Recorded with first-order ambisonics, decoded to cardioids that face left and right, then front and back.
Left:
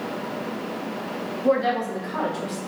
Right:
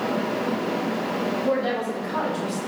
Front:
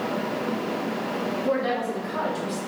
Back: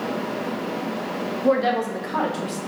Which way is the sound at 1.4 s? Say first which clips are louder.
Left 6 dB, back 6 dB; 155° left.